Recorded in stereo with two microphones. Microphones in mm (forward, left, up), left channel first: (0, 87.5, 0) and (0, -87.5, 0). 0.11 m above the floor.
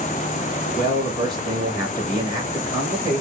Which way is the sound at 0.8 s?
20° right (ahead or behind).